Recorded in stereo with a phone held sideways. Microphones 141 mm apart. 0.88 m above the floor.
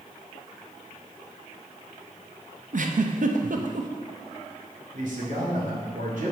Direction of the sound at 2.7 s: 65° right (ahead or behind).